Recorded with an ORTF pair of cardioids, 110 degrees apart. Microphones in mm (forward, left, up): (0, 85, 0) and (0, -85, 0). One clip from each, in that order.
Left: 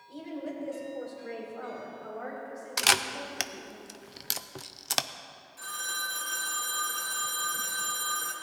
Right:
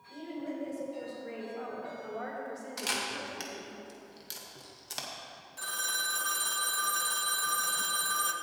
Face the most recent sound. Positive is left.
turn(degrees=-30)